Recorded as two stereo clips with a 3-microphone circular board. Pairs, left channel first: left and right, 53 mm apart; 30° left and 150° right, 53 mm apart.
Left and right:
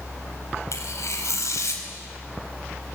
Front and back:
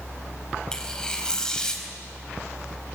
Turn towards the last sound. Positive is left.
turn(degrees=105)